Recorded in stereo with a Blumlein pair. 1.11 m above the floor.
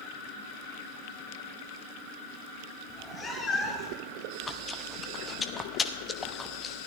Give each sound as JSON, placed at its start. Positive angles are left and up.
{"t": 2.9, "sound": "a cat meowing", "azimuth_deg": 15, "distance_m": 1.8}
{"t": 4.4, "sound": "chewing", "azimuth_deg": 15, "distance_m": 0.8}